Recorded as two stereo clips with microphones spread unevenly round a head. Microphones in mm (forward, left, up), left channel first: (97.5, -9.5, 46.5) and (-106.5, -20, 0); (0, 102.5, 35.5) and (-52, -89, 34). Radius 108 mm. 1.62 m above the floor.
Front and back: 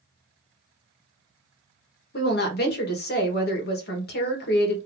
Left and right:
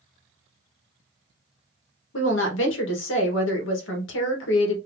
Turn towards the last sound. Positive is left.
turn(degrees=45)